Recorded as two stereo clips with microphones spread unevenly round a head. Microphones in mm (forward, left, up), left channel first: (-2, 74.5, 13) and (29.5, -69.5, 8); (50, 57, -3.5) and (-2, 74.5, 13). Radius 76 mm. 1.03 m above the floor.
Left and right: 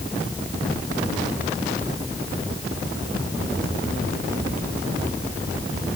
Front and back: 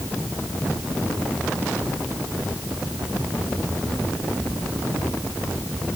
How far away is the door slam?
No door slam in this recording.